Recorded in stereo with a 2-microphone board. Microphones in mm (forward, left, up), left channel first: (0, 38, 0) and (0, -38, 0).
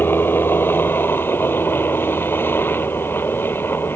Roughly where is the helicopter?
Left.